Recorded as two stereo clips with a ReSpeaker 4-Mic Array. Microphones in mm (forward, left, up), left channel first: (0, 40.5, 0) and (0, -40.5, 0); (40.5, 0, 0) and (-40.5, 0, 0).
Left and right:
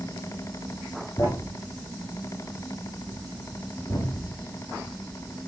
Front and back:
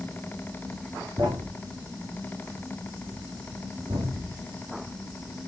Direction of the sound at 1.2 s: 150° left.